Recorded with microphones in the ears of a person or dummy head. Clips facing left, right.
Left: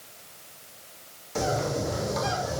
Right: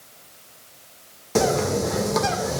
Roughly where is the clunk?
I don't hear a clunk.